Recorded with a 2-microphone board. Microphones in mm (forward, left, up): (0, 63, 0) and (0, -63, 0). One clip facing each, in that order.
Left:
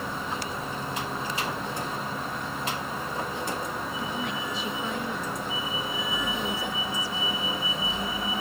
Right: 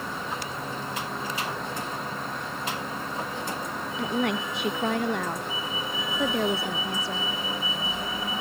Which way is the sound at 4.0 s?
75° right (ahead or behind).